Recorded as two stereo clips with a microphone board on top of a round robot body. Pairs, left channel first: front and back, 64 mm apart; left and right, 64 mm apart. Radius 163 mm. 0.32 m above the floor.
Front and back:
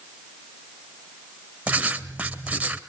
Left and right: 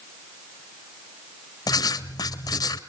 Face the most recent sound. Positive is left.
turn(degrees=105)